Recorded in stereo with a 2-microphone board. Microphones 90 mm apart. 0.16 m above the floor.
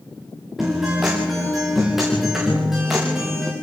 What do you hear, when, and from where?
0.6 s a guitar: 5° right (ahead or behind), 7 m